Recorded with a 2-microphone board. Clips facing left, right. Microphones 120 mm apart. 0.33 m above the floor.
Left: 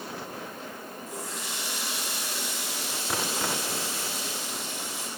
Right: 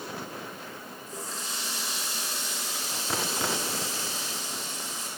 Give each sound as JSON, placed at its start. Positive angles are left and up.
{"t": 1.1, "sound": "a running tap", "side_deg": 75, "distance_m": 6.5}